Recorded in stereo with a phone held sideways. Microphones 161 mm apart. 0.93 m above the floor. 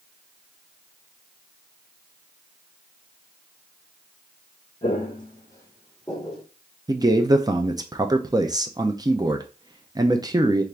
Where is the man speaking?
25° right (ahead or behind), 0.5 m.